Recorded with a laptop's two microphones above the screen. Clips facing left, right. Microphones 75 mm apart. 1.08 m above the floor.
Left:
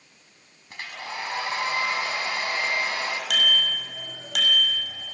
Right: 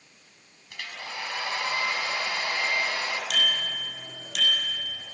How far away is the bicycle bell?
About 4.5 m.